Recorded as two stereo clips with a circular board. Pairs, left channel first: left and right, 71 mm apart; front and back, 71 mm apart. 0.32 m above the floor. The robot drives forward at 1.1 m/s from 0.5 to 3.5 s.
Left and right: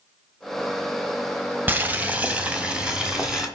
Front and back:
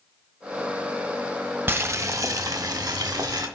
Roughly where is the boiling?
Behind right.